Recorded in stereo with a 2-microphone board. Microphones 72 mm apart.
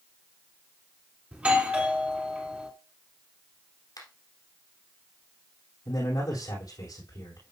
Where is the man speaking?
60° left (ahead or behind), 6 m.